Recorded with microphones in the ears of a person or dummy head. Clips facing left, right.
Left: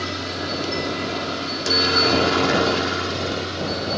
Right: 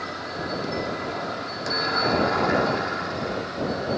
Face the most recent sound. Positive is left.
turn(degrees=45)  # may be behind; listen again after turning